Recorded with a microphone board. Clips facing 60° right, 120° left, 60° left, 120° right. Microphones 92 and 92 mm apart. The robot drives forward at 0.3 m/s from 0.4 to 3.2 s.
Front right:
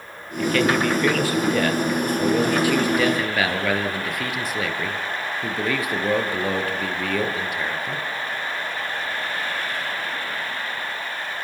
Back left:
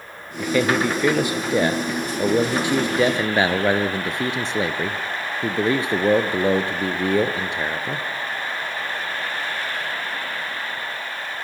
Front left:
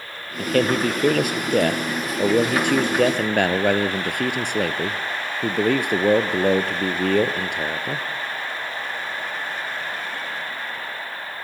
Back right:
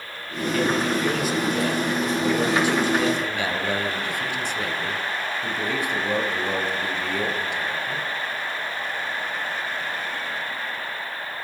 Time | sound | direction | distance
0.4 | a man speaking | 45° left | 3 m